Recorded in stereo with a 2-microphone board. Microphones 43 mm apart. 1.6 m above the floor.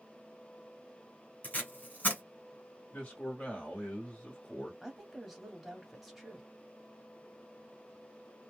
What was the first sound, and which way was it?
Tape being pulled, 35° left (ahead or behind).